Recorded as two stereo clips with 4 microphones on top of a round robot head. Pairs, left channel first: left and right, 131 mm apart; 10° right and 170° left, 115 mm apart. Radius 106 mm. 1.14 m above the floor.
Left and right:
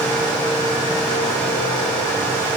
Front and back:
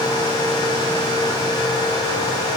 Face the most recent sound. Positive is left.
No sound to turn to.